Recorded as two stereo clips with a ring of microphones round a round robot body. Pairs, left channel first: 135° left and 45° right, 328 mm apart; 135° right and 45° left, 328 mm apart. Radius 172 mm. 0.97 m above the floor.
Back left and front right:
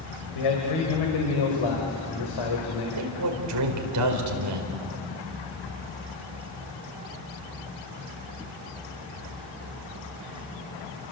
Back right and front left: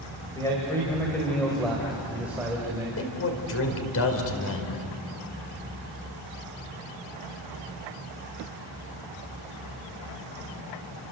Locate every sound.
0.3 s a man speaking: 145° left, 4.5 m; by 2.9 s 125° left, 4 m
3.0 s a man speaking: 85° right, 4.5 m